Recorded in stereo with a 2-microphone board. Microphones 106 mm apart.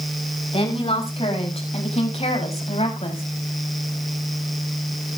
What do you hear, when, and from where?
0.5 s a woman speaking: 65° left (ahead or behind), 6 m; by 3.2 s 80° left, 5 m